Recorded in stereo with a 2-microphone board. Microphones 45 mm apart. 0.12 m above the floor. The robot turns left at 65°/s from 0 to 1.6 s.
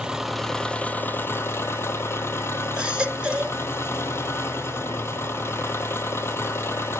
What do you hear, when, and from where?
0.0 s an engine running: 160° right, 0.8 m; by 7.0 s 95° left, 0.8 m
2.8 s a baby crying: 20° right (ahead or behind), 1.1 m